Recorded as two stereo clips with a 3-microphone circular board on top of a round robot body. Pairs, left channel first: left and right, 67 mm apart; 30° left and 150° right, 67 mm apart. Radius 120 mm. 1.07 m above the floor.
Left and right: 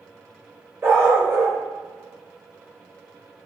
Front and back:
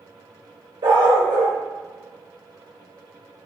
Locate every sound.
0.8 s a dog barking: 145° right, 0.9 m